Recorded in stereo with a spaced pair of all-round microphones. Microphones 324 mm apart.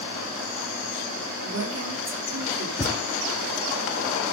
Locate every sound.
1.4 s a woman speaking: 50° right (ahead or behind), 3.5 m
2.8 s a thud: 20° left (ahead or behind), 1.3 m